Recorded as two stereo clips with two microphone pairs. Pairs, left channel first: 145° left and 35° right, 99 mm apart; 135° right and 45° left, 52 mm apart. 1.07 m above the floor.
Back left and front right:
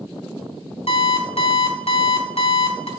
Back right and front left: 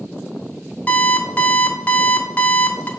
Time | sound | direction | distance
0.9 | an alarm clock | 160° left | 1.2 m